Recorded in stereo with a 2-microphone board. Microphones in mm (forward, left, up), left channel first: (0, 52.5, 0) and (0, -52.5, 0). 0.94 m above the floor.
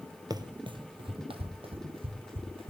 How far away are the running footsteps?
About 1.2 m.